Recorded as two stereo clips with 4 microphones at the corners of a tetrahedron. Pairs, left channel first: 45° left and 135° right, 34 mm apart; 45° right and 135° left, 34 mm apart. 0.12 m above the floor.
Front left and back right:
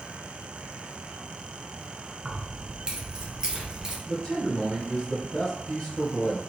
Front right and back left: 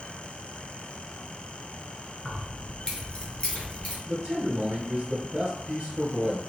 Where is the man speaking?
95° left, 1.2 m.